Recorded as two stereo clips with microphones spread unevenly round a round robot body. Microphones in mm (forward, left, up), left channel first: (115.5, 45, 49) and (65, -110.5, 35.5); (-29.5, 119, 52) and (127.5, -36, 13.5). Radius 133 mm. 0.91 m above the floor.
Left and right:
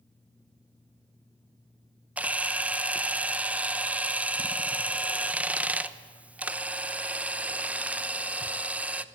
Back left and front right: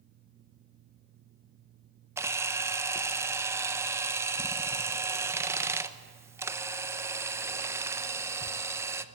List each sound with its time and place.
2.2 s a camera shutter: 55° right, 0.8 m